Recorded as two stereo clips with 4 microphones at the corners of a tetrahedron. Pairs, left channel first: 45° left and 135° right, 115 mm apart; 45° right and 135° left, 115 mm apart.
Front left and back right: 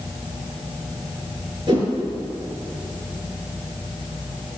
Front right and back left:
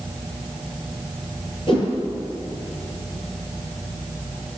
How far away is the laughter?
No laughter in this recording.